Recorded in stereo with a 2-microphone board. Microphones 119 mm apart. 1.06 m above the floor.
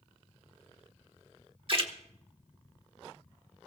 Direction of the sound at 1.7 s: 50° right (ahead or behind).